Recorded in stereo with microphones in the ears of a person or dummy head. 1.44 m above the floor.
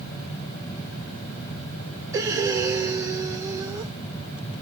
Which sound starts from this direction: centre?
Breathing, at 2.1 s.